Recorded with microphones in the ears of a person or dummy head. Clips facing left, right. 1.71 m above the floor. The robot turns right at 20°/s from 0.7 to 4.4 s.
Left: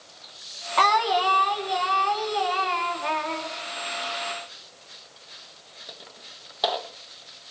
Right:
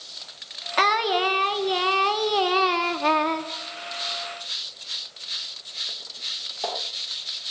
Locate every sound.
0.8 s singing: 160° right, 1.7 m; by 3.5 s 105° right, 1.7 m